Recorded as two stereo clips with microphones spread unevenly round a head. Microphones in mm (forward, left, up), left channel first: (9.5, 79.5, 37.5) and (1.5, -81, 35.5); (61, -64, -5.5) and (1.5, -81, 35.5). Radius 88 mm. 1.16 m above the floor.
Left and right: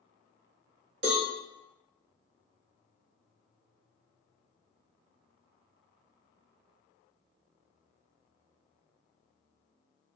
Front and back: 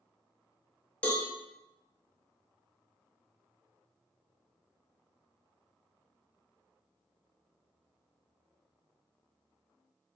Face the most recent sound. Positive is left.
turn(degrees=-75)